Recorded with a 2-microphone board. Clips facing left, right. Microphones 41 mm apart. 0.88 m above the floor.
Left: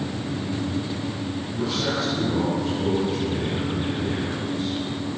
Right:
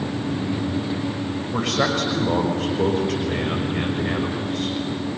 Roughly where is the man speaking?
Right.